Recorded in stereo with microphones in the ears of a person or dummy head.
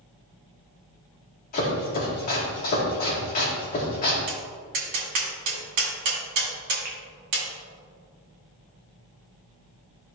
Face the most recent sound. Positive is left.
turn(degrees=-50)  # may be behind; listen again after turning